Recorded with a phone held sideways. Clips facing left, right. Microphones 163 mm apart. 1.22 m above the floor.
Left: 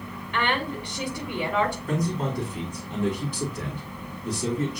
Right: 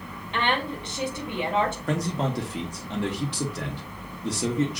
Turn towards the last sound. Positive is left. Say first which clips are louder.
# even
turn(degrees=-75)  # may be behind; listen again after turning